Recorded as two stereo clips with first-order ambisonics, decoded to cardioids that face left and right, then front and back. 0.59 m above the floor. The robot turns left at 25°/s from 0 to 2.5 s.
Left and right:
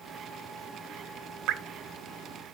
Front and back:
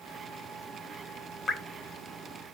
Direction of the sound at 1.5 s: 70° right.